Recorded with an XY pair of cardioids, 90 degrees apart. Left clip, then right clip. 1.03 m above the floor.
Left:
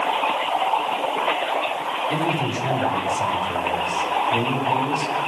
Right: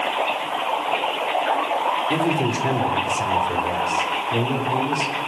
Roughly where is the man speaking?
Ahead right.